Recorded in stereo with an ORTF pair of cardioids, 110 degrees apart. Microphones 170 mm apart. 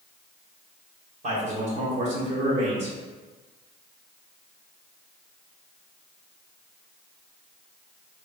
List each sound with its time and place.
1.2 s a man speaking: 45° right, 1.6 m